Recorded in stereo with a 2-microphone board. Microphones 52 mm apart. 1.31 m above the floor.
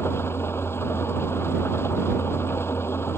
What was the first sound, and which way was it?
An engine running, 50° left (ahead or behind).